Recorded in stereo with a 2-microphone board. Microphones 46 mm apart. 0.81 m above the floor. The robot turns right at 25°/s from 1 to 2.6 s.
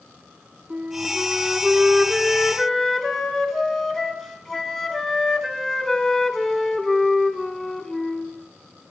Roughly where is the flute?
Ahead right.